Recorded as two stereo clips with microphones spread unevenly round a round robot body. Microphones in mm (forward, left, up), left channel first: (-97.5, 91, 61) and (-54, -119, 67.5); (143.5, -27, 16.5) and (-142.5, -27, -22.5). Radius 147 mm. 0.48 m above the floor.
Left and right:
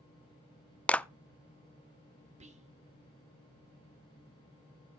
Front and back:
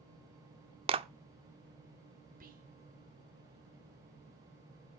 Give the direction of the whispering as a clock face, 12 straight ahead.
4 o'clock.